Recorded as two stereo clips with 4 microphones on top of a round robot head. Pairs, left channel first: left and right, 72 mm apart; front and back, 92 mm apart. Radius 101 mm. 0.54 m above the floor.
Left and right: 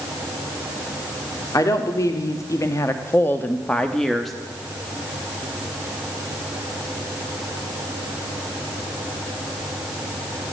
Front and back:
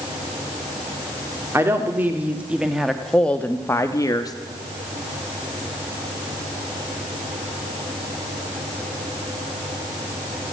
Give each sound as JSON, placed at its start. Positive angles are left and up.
{"t": 1.5, "sound": "a woman speaking", "azimuth_deg": 120, "distance_m": 1.5}